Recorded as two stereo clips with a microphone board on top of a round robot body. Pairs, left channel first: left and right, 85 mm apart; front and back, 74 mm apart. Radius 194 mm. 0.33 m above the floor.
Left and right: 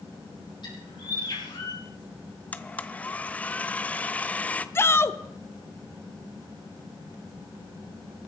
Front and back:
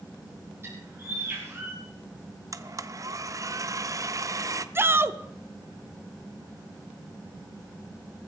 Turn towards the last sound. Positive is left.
turn(degrees=140)